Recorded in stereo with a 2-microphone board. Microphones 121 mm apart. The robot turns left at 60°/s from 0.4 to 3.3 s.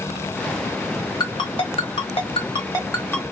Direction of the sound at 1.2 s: 30° left (ahead or behind).